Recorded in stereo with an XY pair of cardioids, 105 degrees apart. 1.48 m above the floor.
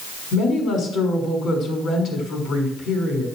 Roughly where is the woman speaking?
Ahead left.